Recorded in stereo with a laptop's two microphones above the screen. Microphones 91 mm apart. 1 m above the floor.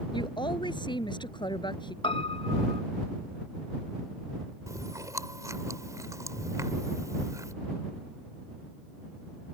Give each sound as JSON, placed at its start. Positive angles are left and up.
{"t": 0.1, "sound": "a woman speaking", "side_deg": 55}
{"t": 2.0, "sound": "a piano", "side_deg": 65}
{"t": 4.7, "sound": "chewing", "side_deg": -35}